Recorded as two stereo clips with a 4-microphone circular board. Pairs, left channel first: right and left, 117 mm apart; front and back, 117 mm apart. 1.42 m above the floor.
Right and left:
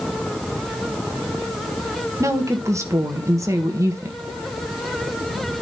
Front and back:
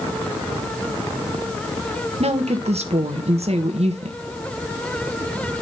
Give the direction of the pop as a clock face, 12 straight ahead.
I don't hear a pop.